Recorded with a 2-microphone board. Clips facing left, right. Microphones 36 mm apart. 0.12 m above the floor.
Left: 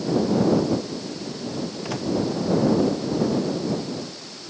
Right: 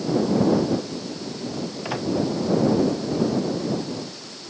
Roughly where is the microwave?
Centre.